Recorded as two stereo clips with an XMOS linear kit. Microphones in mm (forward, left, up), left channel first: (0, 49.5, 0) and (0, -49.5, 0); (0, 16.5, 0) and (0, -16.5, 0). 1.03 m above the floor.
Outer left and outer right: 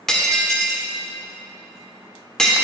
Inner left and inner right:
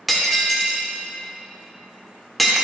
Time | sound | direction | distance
0.1 | breaking glass | 5° left (ahead or behind) | 0.8 m